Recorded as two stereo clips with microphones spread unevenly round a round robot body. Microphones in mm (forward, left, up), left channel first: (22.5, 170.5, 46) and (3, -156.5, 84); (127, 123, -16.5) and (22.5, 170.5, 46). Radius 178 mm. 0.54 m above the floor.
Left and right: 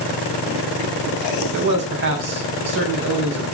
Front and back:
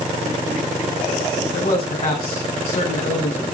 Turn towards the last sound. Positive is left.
turn(degrees=-40)